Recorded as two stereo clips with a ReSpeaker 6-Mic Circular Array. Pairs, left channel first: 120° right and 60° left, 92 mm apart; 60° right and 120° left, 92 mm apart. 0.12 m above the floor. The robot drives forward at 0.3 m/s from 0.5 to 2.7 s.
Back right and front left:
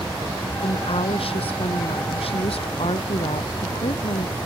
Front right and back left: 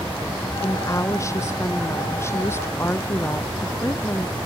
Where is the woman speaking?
115° right; by 4.4 s 120° right.